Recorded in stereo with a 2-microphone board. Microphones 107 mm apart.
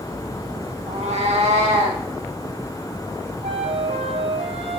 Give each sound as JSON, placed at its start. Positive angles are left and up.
{"t": 0.9, "sound": "a cat meowing", "side_deg": -80, "distance_m": 1.4}
{"t": 3.4, "sound": "a flute", "side_deg": -75, "distance_m": 0.6}